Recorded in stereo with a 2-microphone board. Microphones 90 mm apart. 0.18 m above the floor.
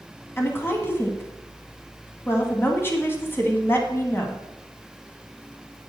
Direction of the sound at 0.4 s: 25° left (ahead or behind).